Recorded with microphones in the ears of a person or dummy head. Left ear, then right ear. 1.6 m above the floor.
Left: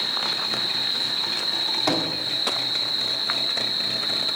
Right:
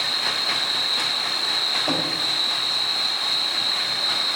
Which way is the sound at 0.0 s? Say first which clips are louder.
Right 2 dB; 85° right.